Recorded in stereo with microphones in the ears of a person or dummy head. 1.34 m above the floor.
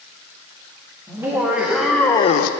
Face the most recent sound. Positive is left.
turn(degrees=65)  # may be behind; listen again after turning